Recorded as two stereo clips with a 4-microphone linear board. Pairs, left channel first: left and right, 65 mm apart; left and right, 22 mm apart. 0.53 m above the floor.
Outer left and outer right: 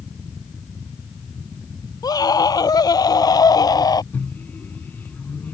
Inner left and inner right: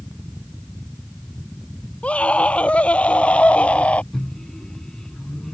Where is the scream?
80° left.